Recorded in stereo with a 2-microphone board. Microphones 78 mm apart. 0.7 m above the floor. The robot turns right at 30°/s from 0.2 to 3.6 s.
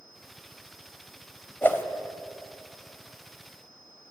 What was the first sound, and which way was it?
A whoosh, 25° left (ahead or behind).